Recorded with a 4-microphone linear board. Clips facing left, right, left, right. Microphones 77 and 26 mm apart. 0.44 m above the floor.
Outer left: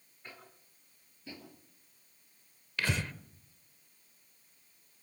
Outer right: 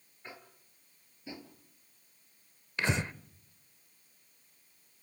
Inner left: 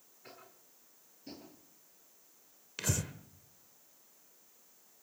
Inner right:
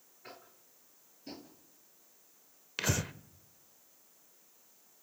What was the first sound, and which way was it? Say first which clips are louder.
Tapping: outer right 2 dB, inner right 2 dB; 15° right (ahead or behind).